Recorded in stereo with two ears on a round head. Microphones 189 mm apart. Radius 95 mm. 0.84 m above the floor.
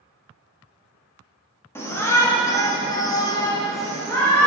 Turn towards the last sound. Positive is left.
turn(degrees=10)  # may be behind; listen again after turning